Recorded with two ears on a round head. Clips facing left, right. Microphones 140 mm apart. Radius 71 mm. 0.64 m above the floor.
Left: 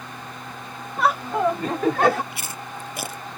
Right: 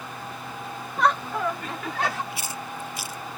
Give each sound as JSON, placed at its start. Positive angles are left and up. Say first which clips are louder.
{"t": 1.0, "sound": "laughter", "louder": "left 3 dB", "side_deg": 0}
{"t": 2.3, "sound": "chewing", "louder": "right 1 dB", "side_deg": 55}